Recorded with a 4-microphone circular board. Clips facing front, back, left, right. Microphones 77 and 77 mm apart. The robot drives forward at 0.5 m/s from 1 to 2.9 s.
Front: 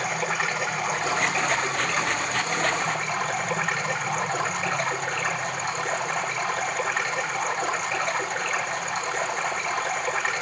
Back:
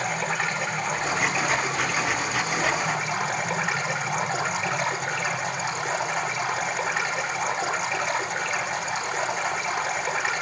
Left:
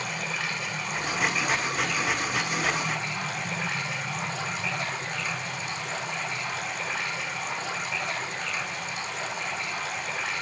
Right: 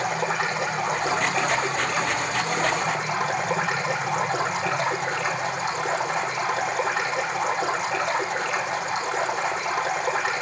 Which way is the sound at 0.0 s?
90° right.